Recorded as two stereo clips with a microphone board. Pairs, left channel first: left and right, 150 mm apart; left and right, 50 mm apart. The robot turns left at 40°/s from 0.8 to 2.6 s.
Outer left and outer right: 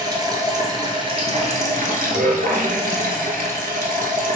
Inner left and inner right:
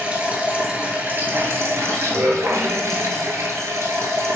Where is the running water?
30° right, 0.8 m; by 4.4 s 100° right, 0.8 m.